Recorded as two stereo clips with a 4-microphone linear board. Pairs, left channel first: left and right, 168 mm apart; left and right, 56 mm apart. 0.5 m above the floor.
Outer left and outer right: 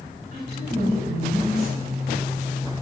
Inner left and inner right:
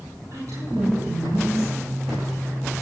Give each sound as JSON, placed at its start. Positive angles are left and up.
{"t": 0.3, "sound": "a woman speaking", "side_deg": -75, "distance_m": 5.5}